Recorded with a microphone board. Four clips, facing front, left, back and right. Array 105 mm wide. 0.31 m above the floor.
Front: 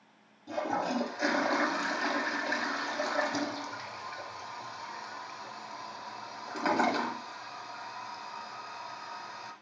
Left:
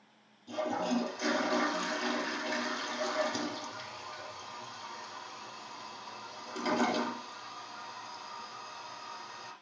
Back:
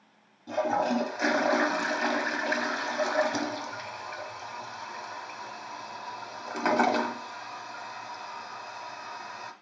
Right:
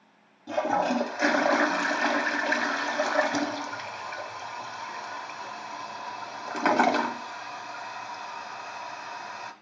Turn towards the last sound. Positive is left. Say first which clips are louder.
# right 7 dB, back 5 dB
turn(degrees=-105)